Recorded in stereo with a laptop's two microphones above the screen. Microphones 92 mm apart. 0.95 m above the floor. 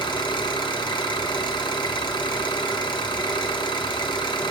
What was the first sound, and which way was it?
An engine running, 55° left (ahead or behind).